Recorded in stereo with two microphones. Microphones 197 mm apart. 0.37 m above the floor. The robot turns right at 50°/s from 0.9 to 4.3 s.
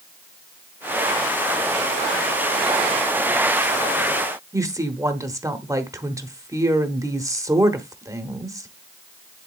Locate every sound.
4.5 s a woman speaking: 15° right (ahead or behind), 1.0 m